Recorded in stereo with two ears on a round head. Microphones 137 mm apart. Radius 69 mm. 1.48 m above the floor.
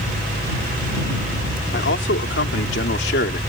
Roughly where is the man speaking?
Left.